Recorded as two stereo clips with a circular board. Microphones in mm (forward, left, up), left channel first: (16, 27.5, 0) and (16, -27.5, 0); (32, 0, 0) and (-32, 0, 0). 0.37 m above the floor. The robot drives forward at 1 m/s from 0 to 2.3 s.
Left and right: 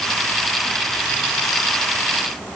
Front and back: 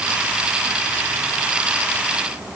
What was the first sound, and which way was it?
Only background noise.